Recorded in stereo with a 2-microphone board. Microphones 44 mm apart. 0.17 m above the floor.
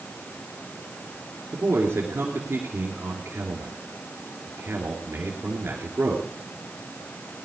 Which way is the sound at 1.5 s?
60° right (ahead or behind).